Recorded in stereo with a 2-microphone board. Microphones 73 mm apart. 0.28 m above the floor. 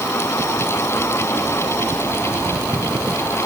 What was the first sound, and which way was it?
Only background noise.